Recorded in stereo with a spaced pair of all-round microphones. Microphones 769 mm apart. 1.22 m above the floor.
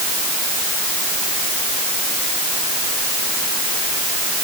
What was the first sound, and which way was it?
Only background noise.